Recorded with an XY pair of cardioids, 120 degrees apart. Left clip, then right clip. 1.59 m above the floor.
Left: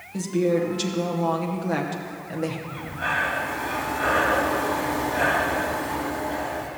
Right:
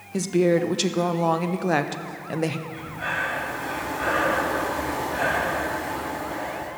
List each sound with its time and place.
0.1 s a woman speaking: 40° right, 0.9 m
2.7 s breathing: 5° left, 3 m